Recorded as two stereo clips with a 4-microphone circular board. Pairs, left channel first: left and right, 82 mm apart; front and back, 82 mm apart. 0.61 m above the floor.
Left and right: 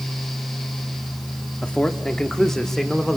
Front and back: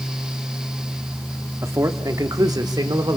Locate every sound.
1.6 s a man speaking: 160° left, 1.3 m; by 3.2 s straight behind, 2 m